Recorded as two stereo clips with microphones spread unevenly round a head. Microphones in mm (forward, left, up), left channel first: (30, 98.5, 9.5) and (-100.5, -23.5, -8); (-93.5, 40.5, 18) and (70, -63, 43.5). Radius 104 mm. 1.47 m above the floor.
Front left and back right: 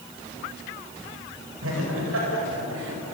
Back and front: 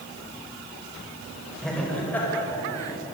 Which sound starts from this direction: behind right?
Laughter, at 1.6 s.